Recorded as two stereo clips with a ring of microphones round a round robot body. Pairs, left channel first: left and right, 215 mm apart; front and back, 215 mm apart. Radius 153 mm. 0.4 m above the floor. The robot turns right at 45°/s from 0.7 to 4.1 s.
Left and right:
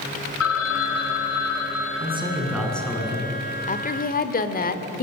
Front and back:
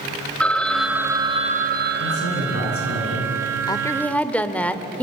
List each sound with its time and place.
0.4 s a phone ringing: 85° left, 2 m; by 3.0 s 170° right, 2 m
2.0 s a man speaking: 30° right, 5.5 m; by 3.3 s 30° left, 5.5 m
3.7 s a woman speaking: 60° left, 1.5 m; by 5.0 s 80° left, 1.5 m